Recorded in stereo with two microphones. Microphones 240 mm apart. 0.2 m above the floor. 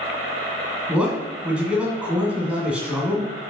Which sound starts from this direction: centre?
A man speaking, at 0.9 s.